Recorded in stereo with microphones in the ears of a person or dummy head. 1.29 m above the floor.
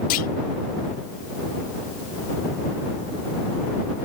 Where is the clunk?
50° left (ahead or behind).